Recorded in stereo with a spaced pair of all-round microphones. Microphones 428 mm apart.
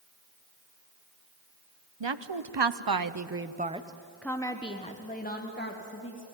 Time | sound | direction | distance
2.0 | a woman speaking | 80° right | 1.0 m